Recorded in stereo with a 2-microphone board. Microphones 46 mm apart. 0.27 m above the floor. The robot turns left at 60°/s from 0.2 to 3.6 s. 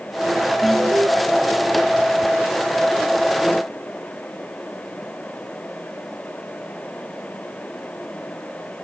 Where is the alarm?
70° right (ahead or behind); by 1.1 s 75° right (ahead or behind).